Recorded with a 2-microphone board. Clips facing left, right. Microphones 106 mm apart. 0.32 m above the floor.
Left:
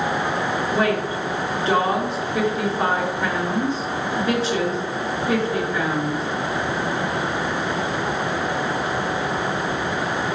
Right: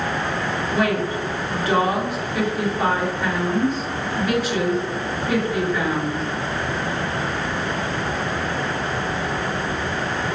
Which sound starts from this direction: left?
A woman speaking, at 0.7 s.